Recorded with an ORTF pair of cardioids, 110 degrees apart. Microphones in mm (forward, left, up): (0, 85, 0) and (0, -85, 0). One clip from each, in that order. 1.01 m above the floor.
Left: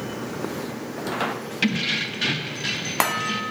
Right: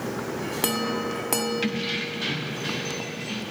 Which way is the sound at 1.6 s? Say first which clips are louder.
Left 4 dB; 35° left.